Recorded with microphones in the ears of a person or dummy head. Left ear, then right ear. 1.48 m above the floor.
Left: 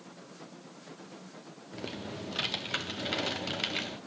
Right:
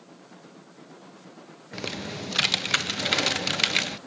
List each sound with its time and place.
1.7 s typing on a keyboard: 65° right (ahead or behind), 0.5 m